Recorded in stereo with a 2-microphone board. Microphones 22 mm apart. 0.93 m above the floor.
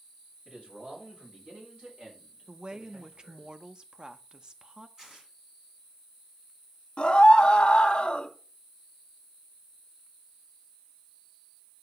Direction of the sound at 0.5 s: 55° right (ahead or behind).